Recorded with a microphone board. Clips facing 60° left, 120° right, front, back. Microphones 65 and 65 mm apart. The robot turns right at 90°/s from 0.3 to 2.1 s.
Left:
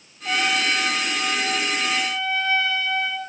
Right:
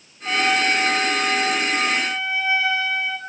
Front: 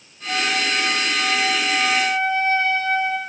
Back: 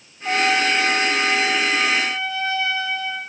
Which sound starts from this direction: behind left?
A trumpet, at 0.2 s.